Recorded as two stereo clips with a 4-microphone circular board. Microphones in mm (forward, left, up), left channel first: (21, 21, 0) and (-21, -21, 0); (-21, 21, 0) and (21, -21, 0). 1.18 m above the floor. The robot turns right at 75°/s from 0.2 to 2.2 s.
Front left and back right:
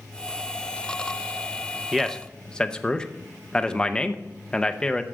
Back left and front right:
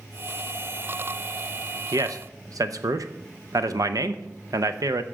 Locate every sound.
1.9 s a man speaking: 55° right, 0.8 m; by 5.0 s 30° right, 0.8 m